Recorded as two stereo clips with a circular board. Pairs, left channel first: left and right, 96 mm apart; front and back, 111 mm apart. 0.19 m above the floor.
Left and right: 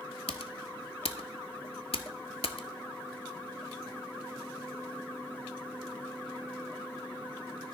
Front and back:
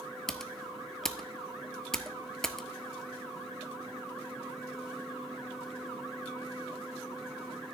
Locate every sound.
0.3 s typing on a keyboard: 85° left, 0.7 m